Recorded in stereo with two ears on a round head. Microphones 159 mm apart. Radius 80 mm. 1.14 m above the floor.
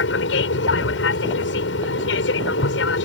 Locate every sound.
0.0 s an aircraft: 75° left (ahead or behind)